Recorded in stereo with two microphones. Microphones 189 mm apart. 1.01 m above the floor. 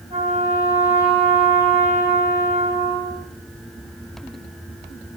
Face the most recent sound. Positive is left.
turn(degrees=-35)  # may be behind; listen again after turning